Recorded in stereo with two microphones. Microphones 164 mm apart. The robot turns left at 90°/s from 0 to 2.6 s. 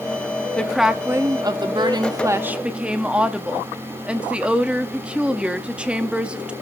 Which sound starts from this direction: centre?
A woman speaking, at 0.6 s.